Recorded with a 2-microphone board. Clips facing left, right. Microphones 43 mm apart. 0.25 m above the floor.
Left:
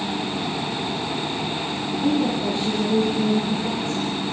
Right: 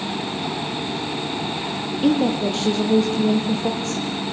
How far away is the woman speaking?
About 7.5 m.